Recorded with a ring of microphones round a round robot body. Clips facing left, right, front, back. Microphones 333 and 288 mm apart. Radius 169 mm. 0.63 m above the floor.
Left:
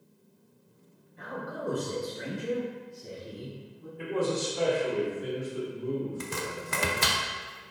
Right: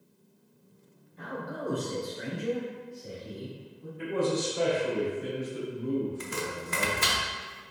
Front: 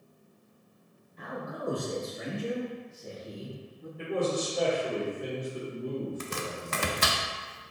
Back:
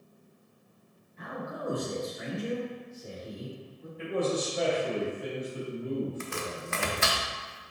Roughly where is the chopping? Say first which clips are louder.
Right 1 dB, even; ahead left.